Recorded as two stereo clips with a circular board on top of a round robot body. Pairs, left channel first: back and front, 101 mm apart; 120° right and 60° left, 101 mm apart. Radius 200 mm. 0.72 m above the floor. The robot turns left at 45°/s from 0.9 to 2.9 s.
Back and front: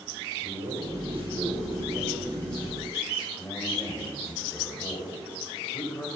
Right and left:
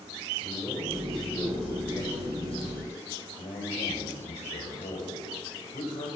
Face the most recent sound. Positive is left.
turn(degrees=-115)